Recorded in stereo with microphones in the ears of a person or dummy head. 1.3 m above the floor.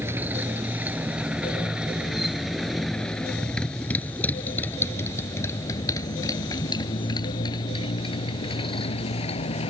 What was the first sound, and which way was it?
A motorcycle, 10° right (ahead or behind).